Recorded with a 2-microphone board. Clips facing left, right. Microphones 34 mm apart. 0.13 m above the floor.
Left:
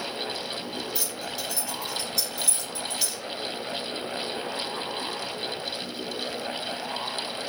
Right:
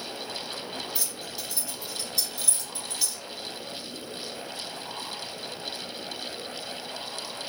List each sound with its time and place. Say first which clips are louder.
0.9 s keys jangling: left 4 dB; 5° right (ahead or behind), 1.6 m